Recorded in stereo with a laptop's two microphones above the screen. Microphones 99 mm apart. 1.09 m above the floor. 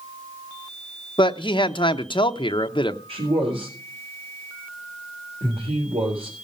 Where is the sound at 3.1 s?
80° right, 4.5 m.